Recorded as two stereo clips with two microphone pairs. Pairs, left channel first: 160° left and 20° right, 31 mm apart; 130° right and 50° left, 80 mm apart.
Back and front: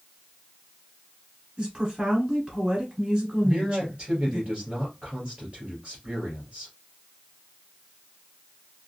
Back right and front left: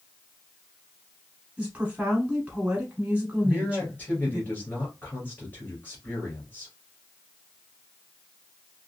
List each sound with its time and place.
1.6 s a woman speaking: 5° right, 1.4 m
3.4 s a man speaking: 65° right, 1.9 m